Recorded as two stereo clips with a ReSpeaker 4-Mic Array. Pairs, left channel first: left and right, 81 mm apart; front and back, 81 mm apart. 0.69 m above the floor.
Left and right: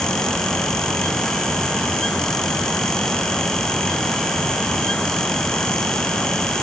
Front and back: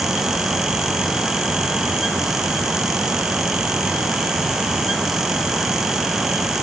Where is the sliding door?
No sliding door in this recording.